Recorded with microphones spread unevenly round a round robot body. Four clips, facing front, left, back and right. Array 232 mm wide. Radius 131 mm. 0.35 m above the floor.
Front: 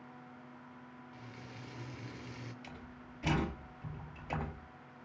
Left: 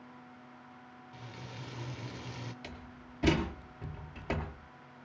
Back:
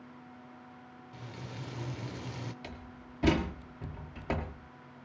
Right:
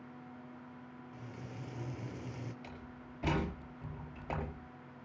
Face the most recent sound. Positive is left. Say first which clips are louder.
# left 1 dB, back 3 dB
turn(degrees=135)